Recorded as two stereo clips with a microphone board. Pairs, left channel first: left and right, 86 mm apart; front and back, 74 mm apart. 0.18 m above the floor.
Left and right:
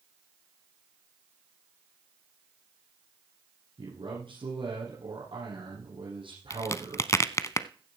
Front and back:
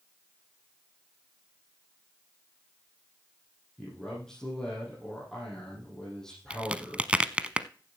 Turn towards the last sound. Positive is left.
turn(degrees=115)